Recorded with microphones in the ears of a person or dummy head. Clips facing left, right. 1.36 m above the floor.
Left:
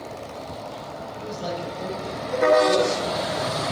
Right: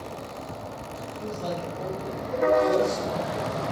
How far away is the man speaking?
About 9 m.